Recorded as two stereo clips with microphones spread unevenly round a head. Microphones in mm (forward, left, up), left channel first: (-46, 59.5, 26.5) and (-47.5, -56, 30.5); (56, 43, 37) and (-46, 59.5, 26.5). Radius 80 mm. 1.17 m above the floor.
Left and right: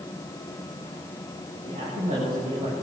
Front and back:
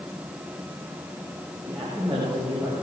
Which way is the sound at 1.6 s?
105° right.